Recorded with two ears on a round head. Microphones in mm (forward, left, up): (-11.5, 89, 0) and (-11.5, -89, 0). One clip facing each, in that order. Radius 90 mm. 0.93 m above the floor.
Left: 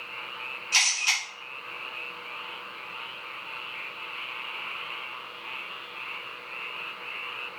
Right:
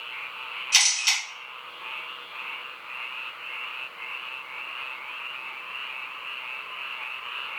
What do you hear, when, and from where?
0.7 s a camera shutter: 20° right (ahead or behind), 1.9 m